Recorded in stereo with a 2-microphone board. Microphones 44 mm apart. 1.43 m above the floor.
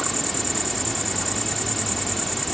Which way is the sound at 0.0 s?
Centre (ahead or behind).